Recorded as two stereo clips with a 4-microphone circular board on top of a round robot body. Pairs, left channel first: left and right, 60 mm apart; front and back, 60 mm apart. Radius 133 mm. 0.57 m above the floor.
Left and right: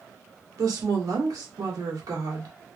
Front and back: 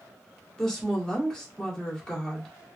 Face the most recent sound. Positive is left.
turn(degrees=-80)